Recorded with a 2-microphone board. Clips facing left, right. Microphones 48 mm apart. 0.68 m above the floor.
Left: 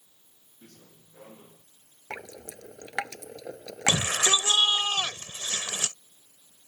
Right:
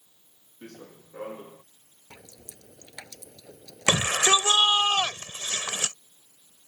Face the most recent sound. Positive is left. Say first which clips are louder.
# right 3 dB
turn(degrees=-35)  # may be behind; listen again after turning